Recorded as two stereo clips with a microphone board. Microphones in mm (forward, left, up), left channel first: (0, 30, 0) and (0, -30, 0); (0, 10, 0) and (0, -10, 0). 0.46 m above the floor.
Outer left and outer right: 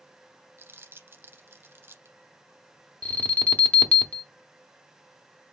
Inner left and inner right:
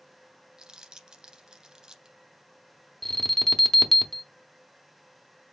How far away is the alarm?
About 0.8 m.